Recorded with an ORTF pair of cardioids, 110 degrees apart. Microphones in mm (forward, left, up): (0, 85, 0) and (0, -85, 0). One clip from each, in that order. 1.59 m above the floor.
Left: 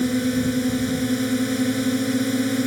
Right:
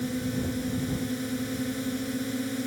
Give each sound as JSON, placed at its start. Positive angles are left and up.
{"t": 0.0, "sound": "a drone", "azimuth_deg": 55}